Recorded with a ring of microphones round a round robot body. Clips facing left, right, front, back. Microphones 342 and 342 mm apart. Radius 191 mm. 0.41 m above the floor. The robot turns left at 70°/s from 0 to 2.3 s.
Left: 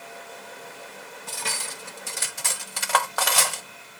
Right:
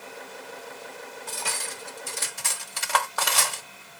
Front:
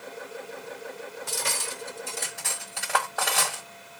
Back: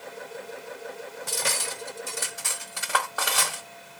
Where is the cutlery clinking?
170° left, 1.4 m; by 3.6 s 95° left, 1.4 m.